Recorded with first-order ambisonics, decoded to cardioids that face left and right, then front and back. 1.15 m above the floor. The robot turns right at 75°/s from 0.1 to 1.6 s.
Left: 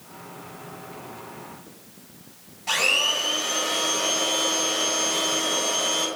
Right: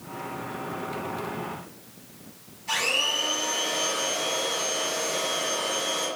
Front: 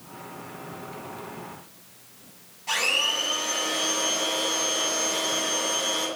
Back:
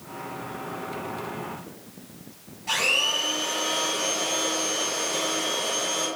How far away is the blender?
About 1.3 m.